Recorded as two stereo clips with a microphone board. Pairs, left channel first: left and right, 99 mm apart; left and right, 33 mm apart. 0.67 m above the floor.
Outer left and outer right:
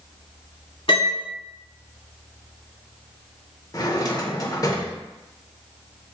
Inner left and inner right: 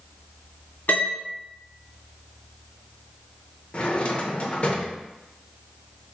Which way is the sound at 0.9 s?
65° left (ahead or behind).